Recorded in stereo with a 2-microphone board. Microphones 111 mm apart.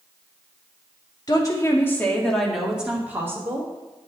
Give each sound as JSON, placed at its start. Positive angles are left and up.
{"t": 1.3, "sound": "a woman speaking", "side_deg": 40, "distance_m": 2.5}